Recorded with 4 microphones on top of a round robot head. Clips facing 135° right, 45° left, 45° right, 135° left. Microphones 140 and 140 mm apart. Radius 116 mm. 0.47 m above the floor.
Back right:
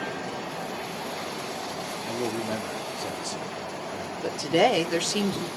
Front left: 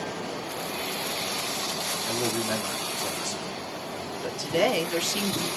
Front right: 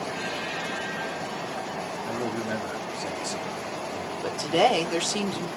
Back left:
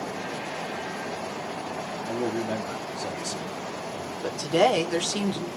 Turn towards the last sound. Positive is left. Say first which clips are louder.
# back right 3 dB, even
turn(degrees=-130)